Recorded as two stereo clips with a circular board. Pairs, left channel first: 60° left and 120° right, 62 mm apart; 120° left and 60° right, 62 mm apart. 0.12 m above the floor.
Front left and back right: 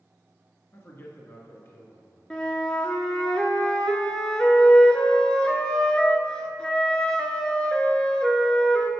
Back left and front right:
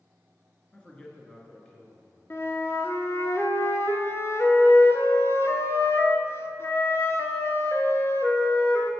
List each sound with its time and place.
0.7 s a man speaking: 50° left, 1.3 m
2.3 s a flute: 130° left, 0.6 m